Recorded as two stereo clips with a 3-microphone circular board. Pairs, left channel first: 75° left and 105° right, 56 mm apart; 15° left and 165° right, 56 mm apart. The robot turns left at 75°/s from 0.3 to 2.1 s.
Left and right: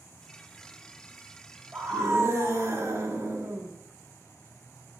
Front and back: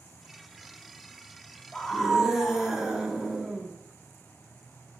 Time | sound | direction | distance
1.7 | a scream | 55° right | 1.6 m